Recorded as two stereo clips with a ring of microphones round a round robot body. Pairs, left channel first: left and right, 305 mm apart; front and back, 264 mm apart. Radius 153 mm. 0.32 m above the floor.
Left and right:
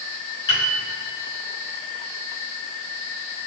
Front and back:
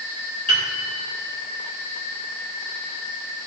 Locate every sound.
0.5 s a piano: 60° left, 4.5 m